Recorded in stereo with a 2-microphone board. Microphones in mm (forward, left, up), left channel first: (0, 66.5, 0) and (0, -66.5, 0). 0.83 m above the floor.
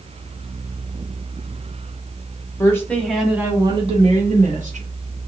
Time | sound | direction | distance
2.6 | a woman speaking | 20° left (ahead or behind) | 1.7 m